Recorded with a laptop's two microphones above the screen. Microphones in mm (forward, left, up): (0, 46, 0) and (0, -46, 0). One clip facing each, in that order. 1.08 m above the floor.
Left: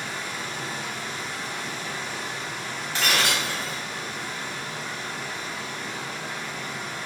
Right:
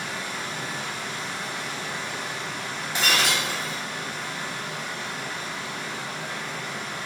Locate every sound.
0.0 s a machine running: 65° right (ahead or behind), 0.7 m
3.0 s breaking glass: 20° right (ahead or behind), 0.7 m